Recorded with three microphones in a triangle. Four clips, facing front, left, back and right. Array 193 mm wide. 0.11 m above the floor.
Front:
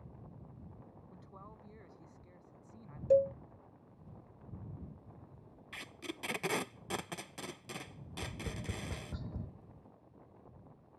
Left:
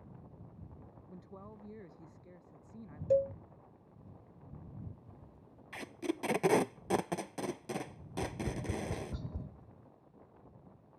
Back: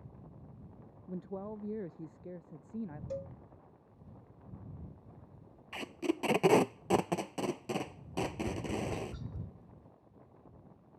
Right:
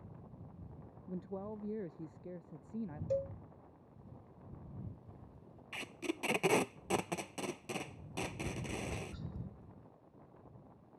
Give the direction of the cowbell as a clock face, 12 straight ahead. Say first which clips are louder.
Left 8 dB, front 17 dB; 11 o'clock.